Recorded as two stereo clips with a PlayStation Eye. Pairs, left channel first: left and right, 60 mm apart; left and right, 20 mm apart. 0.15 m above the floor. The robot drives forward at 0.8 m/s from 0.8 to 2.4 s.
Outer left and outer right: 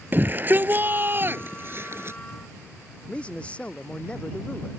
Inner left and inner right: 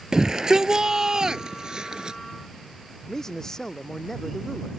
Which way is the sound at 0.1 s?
35° right (ahead or behind).